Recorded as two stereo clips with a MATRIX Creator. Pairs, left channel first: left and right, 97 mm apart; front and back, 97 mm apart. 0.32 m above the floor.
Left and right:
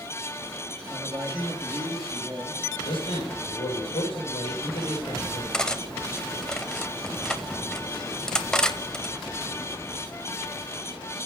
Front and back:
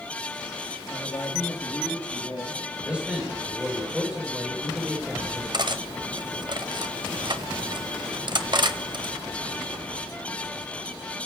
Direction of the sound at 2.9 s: 100° left.